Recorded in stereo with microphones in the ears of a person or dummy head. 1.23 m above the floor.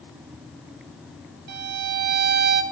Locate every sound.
1.5 s a violin: 50° right (ahead or behind), 2.5 m